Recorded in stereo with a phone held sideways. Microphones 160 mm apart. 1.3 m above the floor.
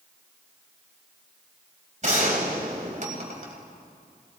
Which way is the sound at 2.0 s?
50° right (ahead or behind).